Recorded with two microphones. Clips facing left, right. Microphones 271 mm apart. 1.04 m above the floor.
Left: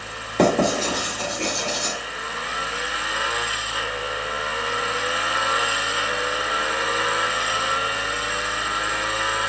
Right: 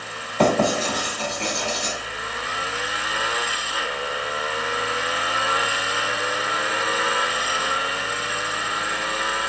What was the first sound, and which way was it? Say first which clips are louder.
Writing: left 1 dB; 80° left.